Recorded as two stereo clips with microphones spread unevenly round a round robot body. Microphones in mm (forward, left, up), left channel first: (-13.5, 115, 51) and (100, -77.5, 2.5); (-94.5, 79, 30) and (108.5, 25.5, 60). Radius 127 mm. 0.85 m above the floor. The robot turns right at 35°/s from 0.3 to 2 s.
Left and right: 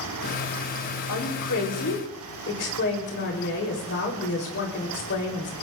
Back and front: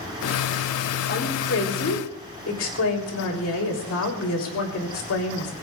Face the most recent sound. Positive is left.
turn(degrees=170)